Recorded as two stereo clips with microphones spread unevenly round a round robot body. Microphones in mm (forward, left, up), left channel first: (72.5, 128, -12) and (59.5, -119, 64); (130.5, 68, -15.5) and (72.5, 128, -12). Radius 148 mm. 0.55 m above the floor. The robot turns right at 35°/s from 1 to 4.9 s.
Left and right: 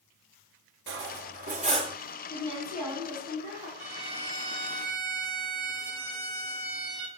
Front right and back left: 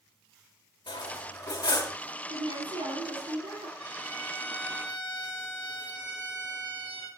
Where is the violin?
155° right, 3.5 m; by 7.1 s 115° right, 3.5 m.